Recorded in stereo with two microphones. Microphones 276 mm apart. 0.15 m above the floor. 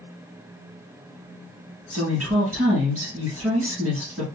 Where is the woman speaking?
55° right (ahead or behind), 1.8 m.